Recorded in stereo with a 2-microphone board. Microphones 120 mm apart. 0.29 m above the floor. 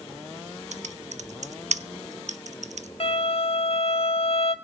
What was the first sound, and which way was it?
Typing on a keyboard, 80° right.